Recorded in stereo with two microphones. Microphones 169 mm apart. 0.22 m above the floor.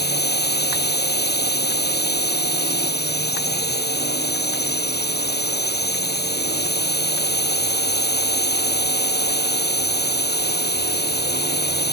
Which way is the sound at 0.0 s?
75° left (ahead or behind).